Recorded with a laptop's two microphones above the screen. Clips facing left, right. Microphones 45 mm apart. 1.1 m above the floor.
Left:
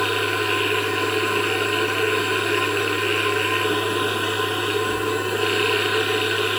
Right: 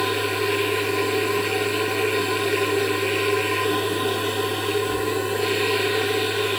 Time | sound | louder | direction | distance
0.0 | a machine running | left 1 dB | 60° left (ahead or behind) | 6.5 m